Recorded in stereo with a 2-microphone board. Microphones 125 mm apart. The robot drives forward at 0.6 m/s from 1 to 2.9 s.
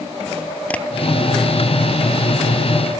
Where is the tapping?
10° left (ahead or behind).